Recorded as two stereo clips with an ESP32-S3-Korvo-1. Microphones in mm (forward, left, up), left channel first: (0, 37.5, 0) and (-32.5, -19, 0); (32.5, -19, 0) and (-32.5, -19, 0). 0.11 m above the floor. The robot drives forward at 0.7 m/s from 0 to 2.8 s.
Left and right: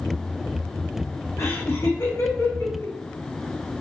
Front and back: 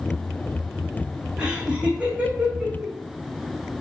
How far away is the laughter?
About 5 m.